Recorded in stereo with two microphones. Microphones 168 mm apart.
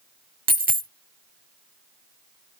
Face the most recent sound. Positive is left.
turn(degrees=-55)  # may be behind; listen again after turning